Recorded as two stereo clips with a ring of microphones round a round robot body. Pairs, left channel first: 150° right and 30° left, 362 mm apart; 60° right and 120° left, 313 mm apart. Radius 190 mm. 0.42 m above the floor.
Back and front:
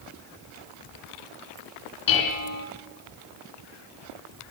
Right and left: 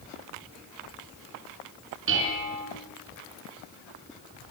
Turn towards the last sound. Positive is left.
turn(degrees=180)